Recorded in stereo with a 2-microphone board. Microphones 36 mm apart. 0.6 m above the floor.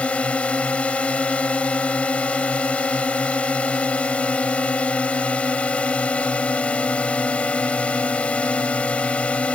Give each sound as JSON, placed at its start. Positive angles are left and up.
{"t": 0.0, "sound": "a drone", "side_deg": 35}